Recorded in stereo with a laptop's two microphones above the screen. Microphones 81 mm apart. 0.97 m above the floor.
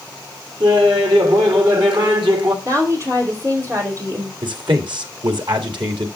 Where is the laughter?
65° right (ahead or behind), 1.9 m.